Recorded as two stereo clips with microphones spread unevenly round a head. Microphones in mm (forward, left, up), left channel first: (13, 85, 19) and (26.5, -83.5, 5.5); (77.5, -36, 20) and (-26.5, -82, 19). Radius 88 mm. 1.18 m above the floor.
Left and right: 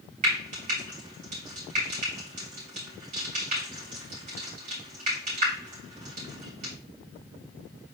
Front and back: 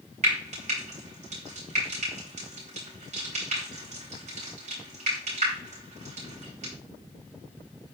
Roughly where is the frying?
Behind right.